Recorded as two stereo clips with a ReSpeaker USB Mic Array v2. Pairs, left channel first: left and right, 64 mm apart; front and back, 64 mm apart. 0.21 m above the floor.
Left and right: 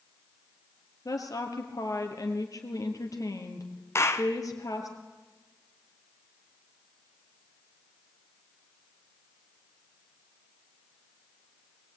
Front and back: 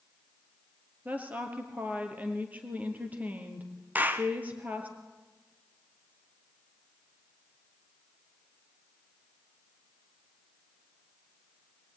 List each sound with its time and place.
1.1 s a woman speaking: 115° left, 4.5 m
4.0 s a clap: 120° left, 1.7 m